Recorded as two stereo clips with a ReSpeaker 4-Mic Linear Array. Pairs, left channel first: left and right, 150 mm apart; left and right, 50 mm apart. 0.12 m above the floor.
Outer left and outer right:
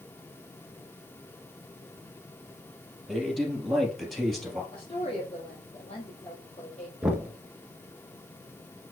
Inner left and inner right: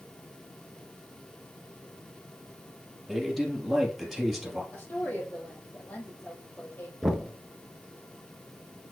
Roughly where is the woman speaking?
Left.